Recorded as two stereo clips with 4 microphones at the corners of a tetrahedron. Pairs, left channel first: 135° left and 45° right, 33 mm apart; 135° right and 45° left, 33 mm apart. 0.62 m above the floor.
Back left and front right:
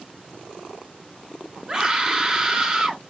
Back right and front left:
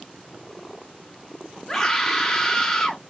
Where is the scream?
80° right, 1.3 m.